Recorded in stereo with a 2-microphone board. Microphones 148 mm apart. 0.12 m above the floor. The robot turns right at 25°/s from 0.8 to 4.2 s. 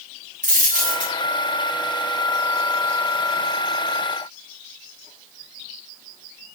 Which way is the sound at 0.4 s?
65° right (ahead or behind).